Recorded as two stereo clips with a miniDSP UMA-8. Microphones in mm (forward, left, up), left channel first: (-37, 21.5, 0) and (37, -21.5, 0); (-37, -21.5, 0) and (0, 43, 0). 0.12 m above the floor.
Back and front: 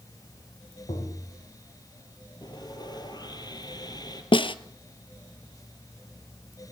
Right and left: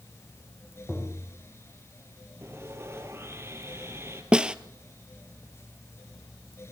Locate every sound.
0.9 s tapping: 160° left, 5 m
2.4 s sawing: 115° left, 2 m
4.3 s a snare drum: 140° left, 0.7 m